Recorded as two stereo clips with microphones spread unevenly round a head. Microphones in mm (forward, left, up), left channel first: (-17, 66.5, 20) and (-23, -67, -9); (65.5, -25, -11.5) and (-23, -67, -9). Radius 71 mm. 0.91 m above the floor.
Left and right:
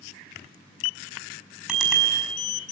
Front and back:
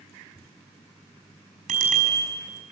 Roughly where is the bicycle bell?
Behind.